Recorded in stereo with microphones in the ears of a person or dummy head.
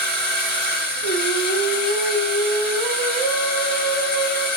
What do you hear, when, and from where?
0.0 s a machine running: 10° left (ahead or behind), 1.7 m
1.0 s singing: 40° left (ahead or behind), 1.4 m